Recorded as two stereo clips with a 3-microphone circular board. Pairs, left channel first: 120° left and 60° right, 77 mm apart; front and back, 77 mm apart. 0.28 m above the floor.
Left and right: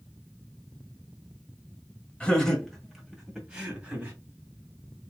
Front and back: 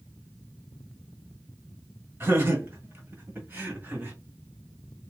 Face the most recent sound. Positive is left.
turn(degrees=-125)